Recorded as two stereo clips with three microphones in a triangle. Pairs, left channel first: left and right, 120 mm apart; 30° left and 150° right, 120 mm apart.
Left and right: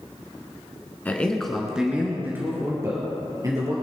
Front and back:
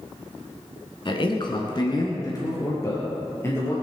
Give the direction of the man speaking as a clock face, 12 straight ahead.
11 o'clock.